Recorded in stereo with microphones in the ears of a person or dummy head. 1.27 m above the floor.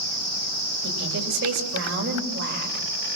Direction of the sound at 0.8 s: 65° right (ahead or behind).